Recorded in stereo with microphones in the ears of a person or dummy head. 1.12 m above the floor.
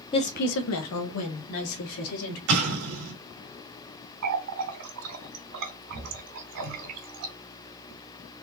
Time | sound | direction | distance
0.1 | a woman speaking | 20° left (ahead or behind) | 0.6 m
2.5 | an explosion | 75° right (ahead or behind) | 2.5 m
4.2 | a running tap | 75° right (ahead or behind) | 2.5 m